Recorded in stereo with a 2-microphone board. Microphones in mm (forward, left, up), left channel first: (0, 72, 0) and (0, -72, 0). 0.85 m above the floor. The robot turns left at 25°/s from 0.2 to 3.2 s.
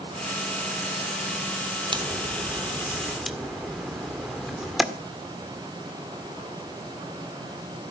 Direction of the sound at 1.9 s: 30° right (ahead or behind).